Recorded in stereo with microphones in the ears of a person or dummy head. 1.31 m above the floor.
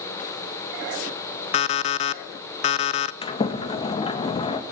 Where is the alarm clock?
40° left (ahead or behind), 0.7 m.